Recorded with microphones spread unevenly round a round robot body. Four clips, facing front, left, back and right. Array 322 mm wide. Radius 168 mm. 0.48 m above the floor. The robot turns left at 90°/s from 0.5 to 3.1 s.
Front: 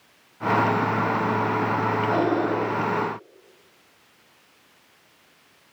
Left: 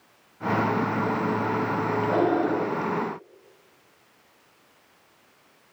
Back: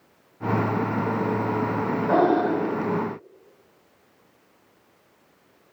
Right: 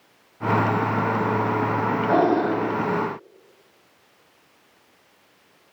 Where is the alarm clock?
No alarm clock in this recording.